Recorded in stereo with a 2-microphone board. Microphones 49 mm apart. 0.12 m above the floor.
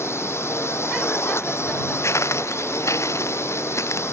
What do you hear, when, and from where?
0.0 s a drone: 60° left (ahead or behind)
2.0 s footsteps: 70° left (ahead or behind); by 4.0 s 80° left